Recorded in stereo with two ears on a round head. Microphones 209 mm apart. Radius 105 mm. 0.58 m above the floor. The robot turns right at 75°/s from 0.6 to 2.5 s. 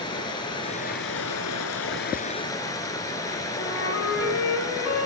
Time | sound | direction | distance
0.0 | running water | 20° left | 1.3 m
3.6 | a flute | 55° left (ahead or behind) | 3.5 m